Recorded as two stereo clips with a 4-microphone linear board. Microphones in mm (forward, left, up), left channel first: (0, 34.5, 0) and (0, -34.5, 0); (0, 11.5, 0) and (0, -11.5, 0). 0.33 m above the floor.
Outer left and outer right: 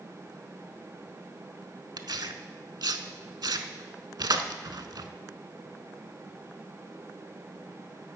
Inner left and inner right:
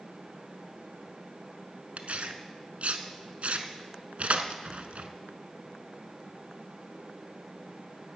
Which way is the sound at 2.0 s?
80° right.